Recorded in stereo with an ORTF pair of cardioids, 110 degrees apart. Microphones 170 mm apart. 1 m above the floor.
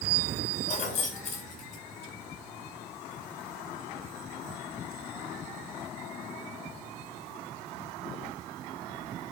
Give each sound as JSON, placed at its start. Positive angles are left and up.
{"t": 0.7, "sound": "keys jangling", "azimuth_deg": 45, "distance_m": 2.5}